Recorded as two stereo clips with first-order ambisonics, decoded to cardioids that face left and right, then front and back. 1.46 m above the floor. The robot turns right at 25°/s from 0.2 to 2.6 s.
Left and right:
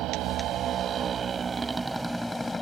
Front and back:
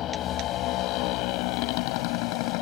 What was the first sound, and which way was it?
A motorcycle, 50° right.